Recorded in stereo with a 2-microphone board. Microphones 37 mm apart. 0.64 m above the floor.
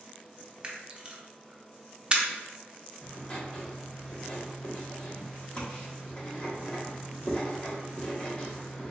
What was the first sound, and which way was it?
A camera shutter, 20° right (ahead or behind).